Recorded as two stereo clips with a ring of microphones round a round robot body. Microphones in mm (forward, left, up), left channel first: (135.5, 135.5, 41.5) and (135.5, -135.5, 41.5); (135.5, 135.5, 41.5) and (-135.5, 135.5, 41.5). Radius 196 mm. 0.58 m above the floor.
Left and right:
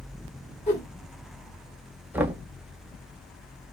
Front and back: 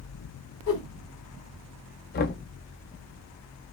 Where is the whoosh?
25° left, 1.9 m.